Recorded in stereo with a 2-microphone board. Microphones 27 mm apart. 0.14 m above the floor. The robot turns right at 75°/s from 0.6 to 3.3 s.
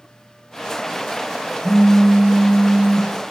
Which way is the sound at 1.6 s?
170° left.